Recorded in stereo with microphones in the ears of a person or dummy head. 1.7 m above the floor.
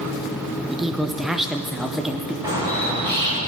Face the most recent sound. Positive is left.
turn(degrees=-25)  # may be behind; listen again after turning